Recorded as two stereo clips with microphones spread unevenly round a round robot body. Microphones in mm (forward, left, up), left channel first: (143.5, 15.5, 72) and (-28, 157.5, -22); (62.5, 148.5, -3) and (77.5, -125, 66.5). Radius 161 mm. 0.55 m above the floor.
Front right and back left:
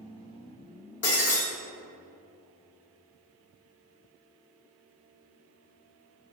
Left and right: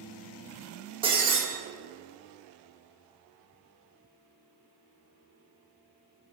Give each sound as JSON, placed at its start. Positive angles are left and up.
{"t": 1.0, "sound": "breaking glass", "azimuth_deg": -20, "distance_m": 1.9}